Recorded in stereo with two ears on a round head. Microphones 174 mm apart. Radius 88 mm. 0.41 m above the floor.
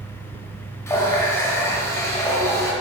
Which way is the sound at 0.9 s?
15° left (ahead or behind).